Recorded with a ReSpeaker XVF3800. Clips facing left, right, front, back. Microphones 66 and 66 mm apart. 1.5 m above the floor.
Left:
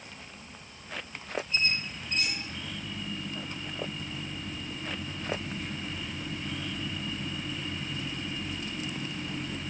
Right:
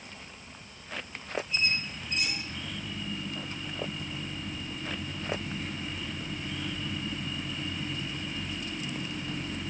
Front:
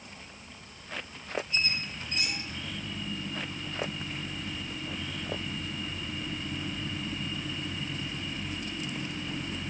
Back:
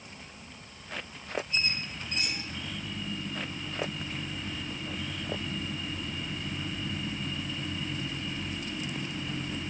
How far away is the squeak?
About 1.3 m.